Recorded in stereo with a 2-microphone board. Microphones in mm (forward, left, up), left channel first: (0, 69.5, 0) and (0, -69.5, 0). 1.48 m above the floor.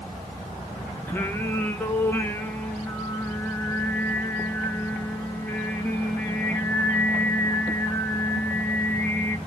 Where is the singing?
15° left (ahead or behind), 1.2 m.